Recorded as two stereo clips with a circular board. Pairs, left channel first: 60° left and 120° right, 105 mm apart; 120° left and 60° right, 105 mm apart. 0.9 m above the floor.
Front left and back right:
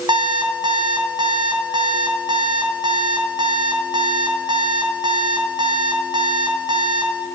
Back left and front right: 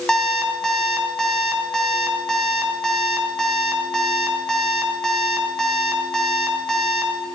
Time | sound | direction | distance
0.1 | an alarm clock | 155° right | 3 m